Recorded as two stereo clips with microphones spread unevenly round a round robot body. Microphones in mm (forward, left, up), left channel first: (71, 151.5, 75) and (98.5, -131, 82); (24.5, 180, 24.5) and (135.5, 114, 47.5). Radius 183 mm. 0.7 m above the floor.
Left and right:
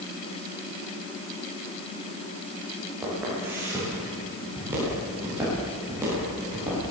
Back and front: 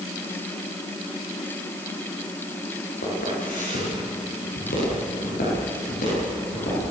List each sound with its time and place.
3.0 s footsteps: 170° right, 10 m; by 6.8 s 165° right, 11.5 m